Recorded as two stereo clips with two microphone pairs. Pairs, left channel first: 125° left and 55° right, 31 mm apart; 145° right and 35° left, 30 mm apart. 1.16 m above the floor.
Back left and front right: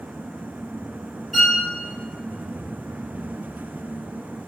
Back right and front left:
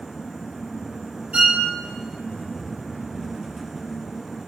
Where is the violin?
25° left, 1.3 m.